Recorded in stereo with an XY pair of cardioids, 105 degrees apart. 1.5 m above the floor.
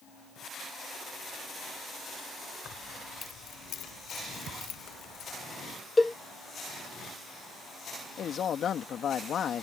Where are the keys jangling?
60° left; by 5.4 s 75° left.